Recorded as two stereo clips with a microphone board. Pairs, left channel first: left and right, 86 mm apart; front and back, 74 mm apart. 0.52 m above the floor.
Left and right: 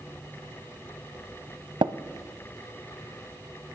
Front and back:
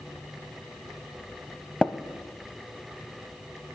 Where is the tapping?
80° right, 0.6 m.